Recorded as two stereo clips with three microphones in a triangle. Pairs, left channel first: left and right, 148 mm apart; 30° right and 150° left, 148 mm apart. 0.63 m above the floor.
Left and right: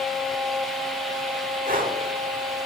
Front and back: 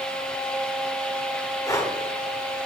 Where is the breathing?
100° right, 1.1 m.